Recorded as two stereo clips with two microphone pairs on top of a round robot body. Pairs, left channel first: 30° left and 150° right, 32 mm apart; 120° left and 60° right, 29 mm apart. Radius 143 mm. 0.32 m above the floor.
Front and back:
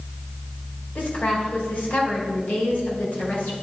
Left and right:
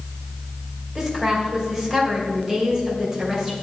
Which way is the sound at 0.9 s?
20° left.